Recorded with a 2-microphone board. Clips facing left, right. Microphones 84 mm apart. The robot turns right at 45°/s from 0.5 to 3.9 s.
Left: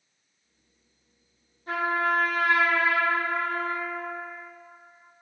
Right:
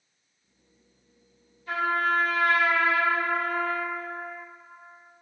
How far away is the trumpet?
About 1.5 m.